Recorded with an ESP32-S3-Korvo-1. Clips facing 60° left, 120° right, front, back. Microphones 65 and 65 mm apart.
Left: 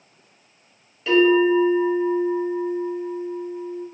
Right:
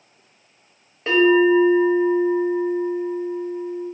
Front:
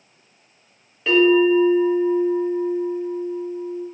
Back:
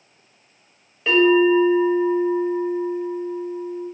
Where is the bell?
95° right, 1.0 m.